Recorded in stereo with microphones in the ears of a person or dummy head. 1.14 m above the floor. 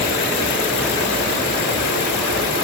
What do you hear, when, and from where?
Only background noise.